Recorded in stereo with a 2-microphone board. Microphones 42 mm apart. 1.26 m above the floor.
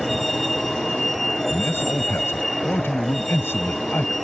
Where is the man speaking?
70° left (ahead or behind).